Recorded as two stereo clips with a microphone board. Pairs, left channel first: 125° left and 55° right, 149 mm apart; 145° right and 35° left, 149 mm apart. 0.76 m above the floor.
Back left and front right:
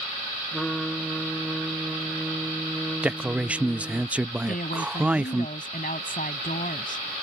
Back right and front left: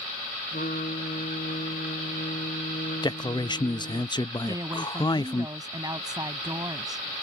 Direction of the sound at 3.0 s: 130° right.